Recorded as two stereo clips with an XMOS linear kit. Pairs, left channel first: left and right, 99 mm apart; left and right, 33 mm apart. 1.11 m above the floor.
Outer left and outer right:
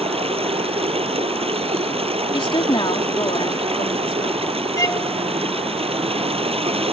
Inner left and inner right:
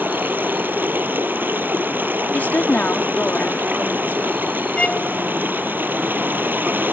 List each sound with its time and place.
0.0 s running water: 80° right
2.3 s a woman speaking: 60° left (ahead or behind)
4.8 s a violin: 30° left (ahead or behind)